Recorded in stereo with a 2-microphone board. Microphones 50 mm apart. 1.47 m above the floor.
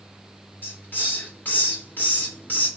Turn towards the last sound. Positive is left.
turn(degrees=40)  # may be behind; listen again after turning